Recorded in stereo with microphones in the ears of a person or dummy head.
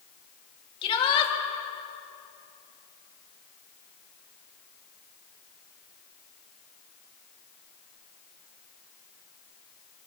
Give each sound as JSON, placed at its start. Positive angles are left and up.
{"t": 0.8, "sound": "a shout", "side_deg": 30, "distance_m": 4.0}